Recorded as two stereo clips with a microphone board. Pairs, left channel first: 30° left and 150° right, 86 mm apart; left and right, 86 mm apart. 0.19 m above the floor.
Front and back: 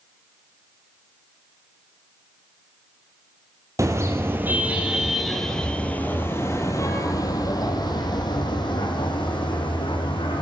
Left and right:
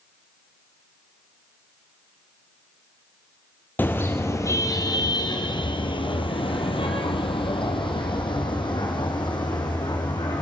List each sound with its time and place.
3.8 s a car horn: 155° left, 2 m; by 10.4 s 55° left, 4.5 m